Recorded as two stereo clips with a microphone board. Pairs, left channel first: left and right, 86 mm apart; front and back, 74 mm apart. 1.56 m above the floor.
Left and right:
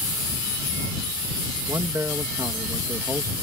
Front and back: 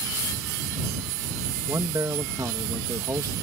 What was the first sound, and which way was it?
A man speaking, 140° right.